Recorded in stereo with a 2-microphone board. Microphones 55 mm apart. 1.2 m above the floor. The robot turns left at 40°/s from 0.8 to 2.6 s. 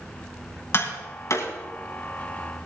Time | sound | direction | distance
0.7 | tapping | 45° left (ahead or behind) | 3 m